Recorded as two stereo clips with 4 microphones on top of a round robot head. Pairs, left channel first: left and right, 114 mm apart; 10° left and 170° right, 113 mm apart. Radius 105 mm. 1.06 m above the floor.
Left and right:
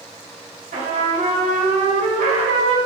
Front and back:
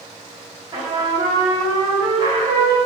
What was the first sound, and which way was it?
A trumpet, 110° right.